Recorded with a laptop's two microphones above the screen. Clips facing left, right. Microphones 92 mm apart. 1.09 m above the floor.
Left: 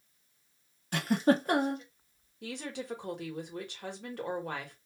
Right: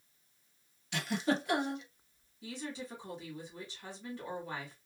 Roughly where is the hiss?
I don't hear a hiss.